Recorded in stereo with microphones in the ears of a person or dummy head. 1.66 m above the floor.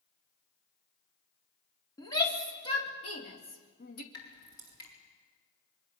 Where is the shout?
20° left (ahead or behind), 3.5 m; by 4.0 s 50° left (ahead or behind), 2.5 m.